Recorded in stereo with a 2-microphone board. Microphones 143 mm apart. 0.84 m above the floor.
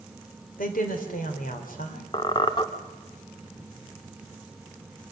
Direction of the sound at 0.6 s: 75° left (ahead or behind).